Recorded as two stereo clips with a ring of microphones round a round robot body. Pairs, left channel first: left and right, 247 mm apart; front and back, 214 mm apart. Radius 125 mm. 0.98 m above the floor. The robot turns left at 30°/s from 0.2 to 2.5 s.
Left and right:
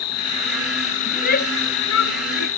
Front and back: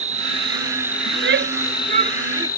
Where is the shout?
150° left; by 2.5 s 110° left.